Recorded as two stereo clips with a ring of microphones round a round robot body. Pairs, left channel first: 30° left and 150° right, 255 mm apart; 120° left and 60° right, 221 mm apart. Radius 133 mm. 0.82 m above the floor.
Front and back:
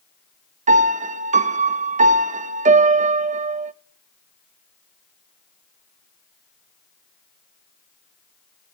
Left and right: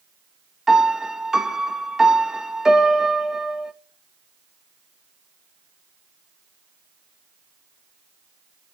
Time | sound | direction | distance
0.7 | a piano | 145° right | 0.5 m